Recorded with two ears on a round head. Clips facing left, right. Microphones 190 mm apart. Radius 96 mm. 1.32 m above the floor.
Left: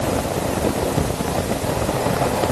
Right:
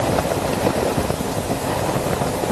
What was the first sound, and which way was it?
Only background noise.